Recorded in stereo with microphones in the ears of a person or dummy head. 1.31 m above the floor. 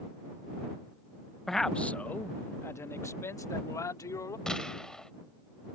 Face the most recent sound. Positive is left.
turn(degrees=0)  # may be behind; listen again after turning